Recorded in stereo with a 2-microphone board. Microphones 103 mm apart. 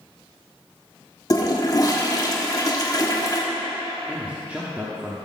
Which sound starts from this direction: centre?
A man speaking, at 4.1 s.